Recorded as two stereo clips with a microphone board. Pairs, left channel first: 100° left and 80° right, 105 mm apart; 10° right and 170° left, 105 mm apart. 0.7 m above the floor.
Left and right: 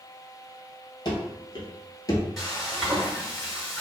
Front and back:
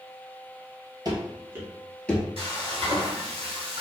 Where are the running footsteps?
135° left, 1.0 m; by 2.3 s 50° left, 0.9 m.